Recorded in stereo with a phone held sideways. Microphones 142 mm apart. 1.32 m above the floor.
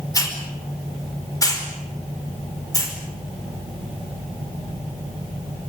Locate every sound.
0.1 s a hiss: 25° left (ahead or behind), 4.5 m